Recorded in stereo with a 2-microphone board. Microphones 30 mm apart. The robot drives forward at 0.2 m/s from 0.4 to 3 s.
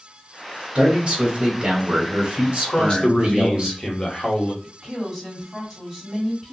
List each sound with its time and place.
0.8 s a man speaking: 35° right (ahead or behind), 1.3 m; by 3.7 s 30° right (ahead or behind), 1.5 m
2.7 s a man speaking: 35° left (ahead or behind), 1.1 m
4.6 s a woman speaking: 5° left (ahead or behind), 1.9 m